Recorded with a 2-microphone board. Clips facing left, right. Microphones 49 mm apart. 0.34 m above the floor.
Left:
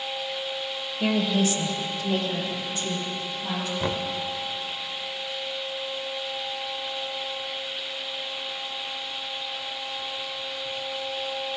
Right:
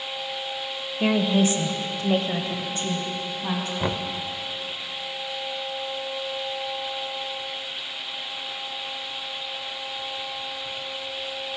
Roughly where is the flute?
I don't hear a flute.